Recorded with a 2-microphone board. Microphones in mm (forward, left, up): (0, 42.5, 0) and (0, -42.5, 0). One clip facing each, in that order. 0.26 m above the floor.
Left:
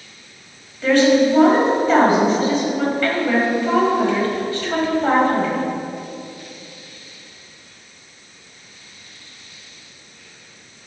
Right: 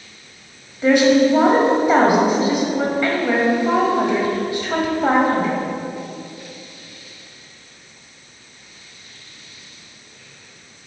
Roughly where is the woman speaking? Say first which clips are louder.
Right 1 dB; centre.